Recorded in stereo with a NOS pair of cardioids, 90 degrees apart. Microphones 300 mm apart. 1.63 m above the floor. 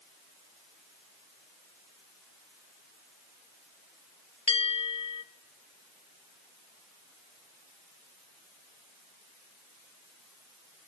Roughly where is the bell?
Ahead.